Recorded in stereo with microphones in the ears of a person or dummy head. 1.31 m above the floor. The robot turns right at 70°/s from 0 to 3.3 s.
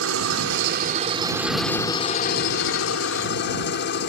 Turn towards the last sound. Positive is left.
turn(degrees=125)